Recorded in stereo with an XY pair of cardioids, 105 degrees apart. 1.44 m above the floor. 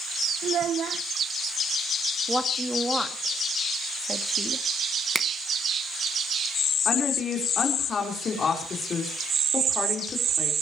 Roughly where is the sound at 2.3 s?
Ahead.